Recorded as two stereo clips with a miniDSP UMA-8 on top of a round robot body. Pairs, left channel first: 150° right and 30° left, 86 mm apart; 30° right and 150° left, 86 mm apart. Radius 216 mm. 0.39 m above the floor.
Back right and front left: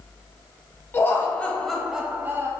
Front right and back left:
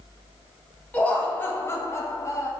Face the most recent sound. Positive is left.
turn(degrees=0)